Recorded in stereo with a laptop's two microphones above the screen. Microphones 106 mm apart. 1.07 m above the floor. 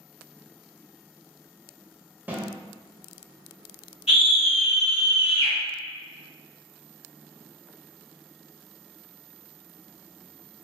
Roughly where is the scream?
Left.